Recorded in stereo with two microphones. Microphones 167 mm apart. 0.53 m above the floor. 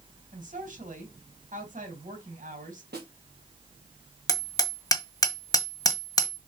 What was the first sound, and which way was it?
A woman speaking, 50° right (ahead or behind).